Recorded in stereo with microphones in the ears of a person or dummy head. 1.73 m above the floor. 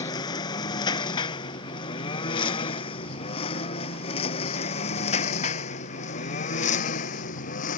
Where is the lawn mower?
25° left (ahead or behind); by 7.8 s 45° left (ahead or behind).